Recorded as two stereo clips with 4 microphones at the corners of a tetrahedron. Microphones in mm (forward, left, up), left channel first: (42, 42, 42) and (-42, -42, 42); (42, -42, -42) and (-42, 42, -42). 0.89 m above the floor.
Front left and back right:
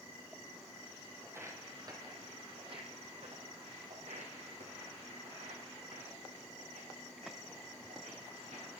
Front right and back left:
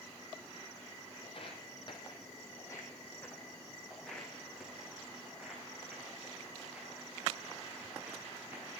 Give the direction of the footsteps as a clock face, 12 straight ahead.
2 o'clock.